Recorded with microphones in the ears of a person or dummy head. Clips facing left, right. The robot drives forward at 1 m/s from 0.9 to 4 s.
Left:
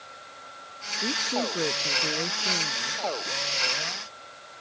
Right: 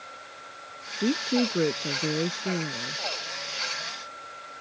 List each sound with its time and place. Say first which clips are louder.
1.0 s a woman speaking: right 5 dB; 25° right (ahead or behind); by 3.0 s 20° right (ahead or behind)